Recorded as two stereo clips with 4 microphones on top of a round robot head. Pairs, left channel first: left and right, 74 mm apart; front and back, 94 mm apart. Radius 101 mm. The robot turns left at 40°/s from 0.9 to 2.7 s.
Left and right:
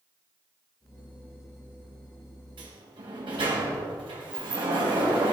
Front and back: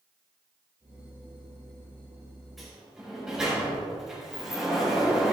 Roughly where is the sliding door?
Right.